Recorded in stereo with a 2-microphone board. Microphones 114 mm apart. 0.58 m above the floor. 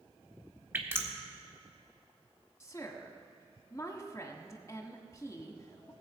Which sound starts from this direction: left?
A woman speaking, at 2.6 s.